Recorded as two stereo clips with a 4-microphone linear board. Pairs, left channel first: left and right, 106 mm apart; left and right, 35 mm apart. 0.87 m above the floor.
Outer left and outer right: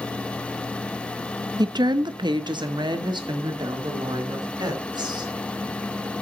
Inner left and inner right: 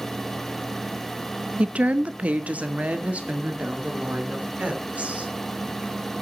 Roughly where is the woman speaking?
Right.